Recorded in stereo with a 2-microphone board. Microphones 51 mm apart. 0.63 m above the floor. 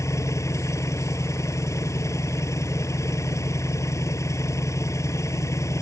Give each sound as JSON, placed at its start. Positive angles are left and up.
{"t": 0.0, "sound": "an engine running", "side_deg": 65}